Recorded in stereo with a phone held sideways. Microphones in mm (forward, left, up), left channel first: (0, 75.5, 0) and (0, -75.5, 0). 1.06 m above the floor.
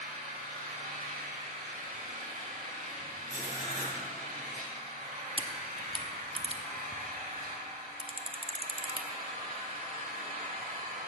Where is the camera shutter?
35° right (ahead or behind), 0.6 m.